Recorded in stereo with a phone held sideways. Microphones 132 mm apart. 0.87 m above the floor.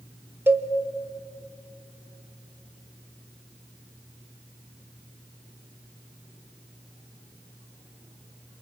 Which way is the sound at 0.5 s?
15° right (ahead or behind).